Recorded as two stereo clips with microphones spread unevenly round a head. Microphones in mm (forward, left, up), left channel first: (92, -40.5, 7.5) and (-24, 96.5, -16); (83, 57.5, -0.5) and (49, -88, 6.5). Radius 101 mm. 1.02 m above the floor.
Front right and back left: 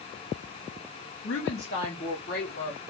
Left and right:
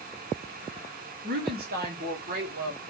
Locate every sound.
1.2 s a woman speaking: 90° right, 2.5 m; by 2.8 s 110° right, 2.5 m